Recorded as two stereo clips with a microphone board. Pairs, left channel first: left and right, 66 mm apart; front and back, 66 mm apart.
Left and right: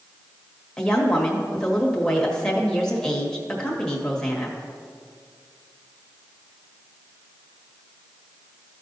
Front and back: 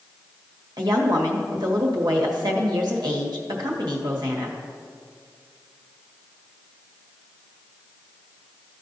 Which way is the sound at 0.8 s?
170° left.